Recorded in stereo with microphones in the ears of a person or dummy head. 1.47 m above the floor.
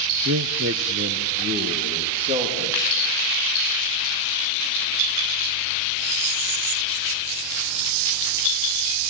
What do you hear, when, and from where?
0.2 s a man speaking: 60° right (ahead or behind), 0.7 m; by 2.8 s 35° right (ahead or behind), 3.5 m